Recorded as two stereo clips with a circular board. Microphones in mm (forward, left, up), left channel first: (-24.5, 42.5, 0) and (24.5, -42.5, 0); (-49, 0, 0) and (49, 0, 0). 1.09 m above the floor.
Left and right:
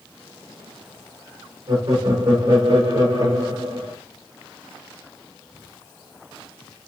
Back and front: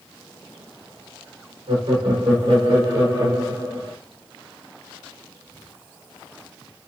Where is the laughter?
25° right, 2.5 m; by 3.9 s 55° right, 2.5 m.